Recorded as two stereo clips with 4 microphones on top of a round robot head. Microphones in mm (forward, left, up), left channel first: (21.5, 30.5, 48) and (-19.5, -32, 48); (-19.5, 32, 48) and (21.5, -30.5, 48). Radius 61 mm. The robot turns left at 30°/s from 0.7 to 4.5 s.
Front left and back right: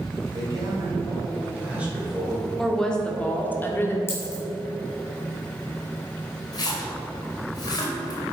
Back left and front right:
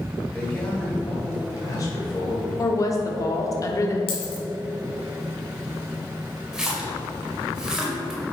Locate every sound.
0.3 s a man speaking: 165° right, 3 m; by 2.5 s 145° left, 3 m
2.6 s a woman speaking: 140° left, 1.5 m; by 4.0 s 100° left, 1.5 m
4.1 s a dropped coin: 115° left, 3 m; by 4.4 s 105° left, 3 m
6.5 s a splash: 25° left, 2 m